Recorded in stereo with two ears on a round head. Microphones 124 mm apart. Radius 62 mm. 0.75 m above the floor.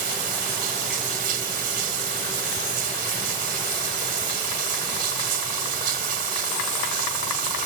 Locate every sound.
0.0 s running water: 75° right (ahead or behind)